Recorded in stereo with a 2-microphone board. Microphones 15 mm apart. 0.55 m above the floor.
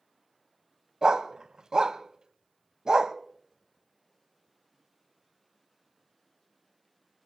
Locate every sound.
1.0 s a dog barking: 65° right (ahead or behind), 0.7 m